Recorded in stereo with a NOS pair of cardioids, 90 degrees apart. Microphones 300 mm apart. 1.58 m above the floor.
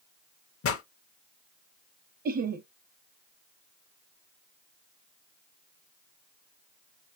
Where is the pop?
50° left, 1.1 m.